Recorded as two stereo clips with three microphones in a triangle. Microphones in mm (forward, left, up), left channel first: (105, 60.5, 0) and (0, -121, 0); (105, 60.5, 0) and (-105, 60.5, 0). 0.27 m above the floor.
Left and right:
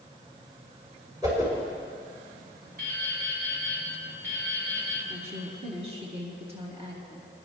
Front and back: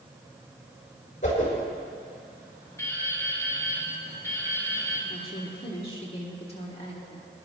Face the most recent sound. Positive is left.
turn(degrees=-60)